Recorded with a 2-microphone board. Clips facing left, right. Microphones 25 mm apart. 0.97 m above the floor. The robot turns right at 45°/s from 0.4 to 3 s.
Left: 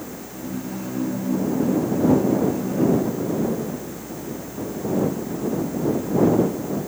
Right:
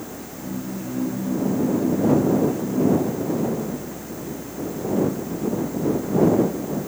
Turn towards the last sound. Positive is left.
No sound to turn to.